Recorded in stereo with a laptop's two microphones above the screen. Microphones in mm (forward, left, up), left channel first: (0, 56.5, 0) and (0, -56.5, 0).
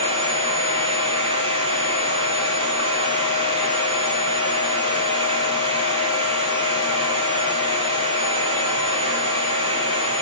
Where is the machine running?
65° right (ahead or behind), 3 m.